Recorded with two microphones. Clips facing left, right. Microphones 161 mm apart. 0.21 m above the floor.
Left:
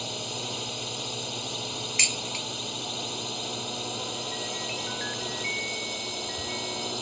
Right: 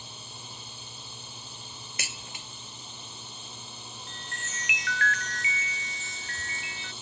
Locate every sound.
0.0 s a drone: 75° left (ahead or behind); by 7.0 s 70° left (ahead or behind)
2.0 s dishes clattering: 55° right (ahead or behind)
4.1 s a chime: 85° right